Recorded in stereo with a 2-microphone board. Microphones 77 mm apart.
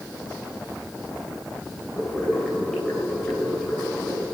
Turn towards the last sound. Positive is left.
turn(degrees=15)  # may be behind; listen again after turning